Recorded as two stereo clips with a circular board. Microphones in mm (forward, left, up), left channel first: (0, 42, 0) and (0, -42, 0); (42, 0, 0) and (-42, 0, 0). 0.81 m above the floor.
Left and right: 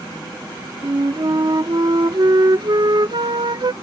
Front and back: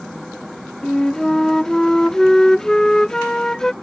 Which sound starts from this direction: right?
A flute, at 0.8 s.